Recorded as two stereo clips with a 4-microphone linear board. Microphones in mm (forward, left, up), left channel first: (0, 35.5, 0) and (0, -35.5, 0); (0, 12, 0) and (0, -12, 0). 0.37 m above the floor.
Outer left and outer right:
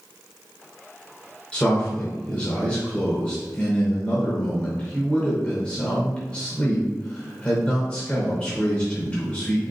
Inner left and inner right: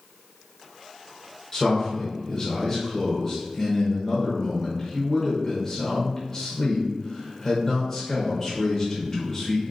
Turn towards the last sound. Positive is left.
turn(degrees=15)  # may be behind; listen again after turning